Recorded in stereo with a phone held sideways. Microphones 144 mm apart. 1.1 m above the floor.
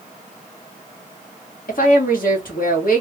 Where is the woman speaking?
80° left, 1.4 m.